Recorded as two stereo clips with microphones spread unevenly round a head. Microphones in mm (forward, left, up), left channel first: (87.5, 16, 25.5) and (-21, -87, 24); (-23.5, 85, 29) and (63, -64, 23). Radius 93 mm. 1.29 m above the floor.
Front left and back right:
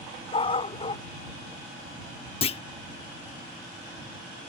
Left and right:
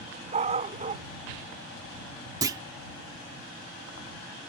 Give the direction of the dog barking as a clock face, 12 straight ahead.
12 o'clock.